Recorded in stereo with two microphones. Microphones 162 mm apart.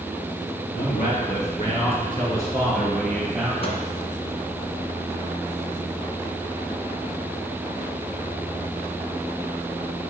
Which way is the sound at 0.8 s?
65° left (ahead or behind).